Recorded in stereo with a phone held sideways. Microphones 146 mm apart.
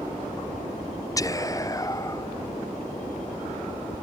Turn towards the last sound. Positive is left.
turn(degrees=25)  # may be behind; listen again after turning